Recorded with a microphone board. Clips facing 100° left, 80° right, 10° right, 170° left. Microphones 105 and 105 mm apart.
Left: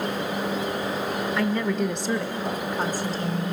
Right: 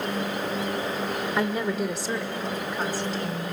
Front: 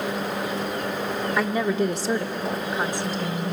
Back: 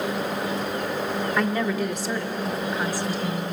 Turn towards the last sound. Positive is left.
turn(degrees=25)